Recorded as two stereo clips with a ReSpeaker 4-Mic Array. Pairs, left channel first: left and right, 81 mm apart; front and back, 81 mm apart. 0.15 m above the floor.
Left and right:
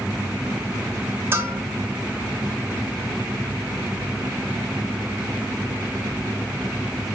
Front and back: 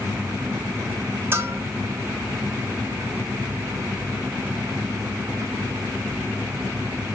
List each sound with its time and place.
1.3 s a bell: 135° right, 0.6 m